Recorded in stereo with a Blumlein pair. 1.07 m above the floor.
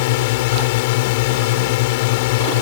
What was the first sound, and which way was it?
A drone, 50° left.